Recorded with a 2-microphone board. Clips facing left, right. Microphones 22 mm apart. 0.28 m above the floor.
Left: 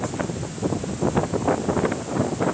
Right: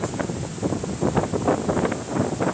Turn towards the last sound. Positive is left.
No sound to turn to.